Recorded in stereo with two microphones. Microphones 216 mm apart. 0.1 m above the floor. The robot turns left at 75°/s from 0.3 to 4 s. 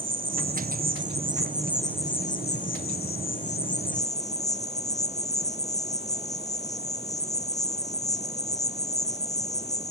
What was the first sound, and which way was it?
An insect, 65° right.